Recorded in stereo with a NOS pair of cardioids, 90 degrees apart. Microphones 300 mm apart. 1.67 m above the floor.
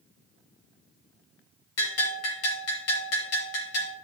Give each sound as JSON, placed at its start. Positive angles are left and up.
{"t": 1.8, "sound": "a bell", "azimuth_deg": 60, "distance_m": 3.5}